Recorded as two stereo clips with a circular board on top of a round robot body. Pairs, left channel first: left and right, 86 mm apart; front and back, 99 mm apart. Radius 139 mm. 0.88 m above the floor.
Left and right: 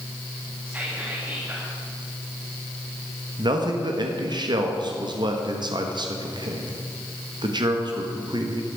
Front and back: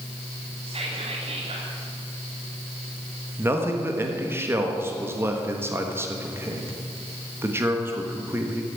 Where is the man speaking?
115° right, 1.6 m.